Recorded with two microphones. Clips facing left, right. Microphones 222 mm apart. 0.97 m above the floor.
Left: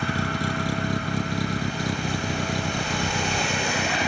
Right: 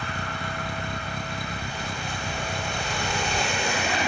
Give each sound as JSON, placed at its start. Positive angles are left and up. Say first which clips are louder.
{"t": 0.0, "sound": "a vehicle", "louder": "left 7 dB", "side_deg": 85}